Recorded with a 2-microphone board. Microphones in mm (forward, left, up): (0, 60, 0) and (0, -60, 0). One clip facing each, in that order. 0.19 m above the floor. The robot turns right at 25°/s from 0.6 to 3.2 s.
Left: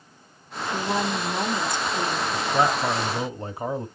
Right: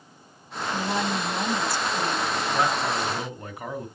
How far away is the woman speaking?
About 1.0 m.